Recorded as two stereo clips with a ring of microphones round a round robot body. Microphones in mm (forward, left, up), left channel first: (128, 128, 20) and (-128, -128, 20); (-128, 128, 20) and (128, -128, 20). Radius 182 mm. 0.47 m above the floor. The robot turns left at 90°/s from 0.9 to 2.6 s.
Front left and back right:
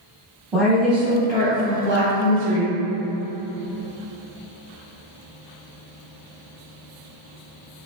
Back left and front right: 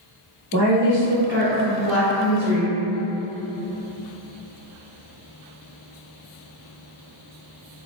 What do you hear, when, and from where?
0.5 s a woman speaking: 45° right, 1.1 m; by 2.7 s 160° left, 1.1 m